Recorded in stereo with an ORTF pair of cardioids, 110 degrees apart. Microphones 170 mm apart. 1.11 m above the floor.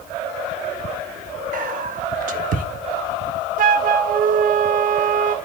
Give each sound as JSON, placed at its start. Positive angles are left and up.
{"t": 1.5, "sound": "whispering", "azimuth_deg": -55, "distance_m": 1.4}
{"t": 3.6, "sound": "a flute", "azimuth_deg": -55, "distance_m": 0.5}